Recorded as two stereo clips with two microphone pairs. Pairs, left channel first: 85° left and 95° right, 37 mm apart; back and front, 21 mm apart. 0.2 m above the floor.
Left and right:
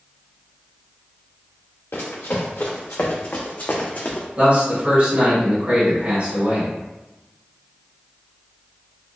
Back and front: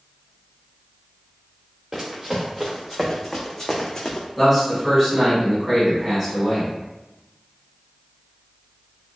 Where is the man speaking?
75° right, 1.6 m.